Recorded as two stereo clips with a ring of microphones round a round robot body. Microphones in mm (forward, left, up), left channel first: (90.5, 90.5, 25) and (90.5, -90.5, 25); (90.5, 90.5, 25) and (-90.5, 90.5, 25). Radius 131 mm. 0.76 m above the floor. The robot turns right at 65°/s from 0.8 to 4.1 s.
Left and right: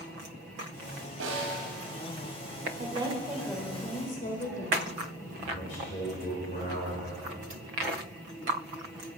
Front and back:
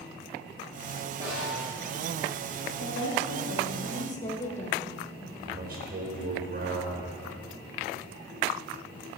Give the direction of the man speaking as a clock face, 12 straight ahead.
7 o'clock.